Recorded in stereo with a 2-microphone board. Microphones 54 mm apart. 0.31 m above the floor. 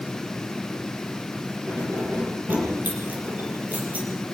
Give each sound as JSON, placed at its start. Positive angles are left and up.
{"t": 1.7, "sound": "keys jangling", "side_deg": -45, "distance_m": 7.5}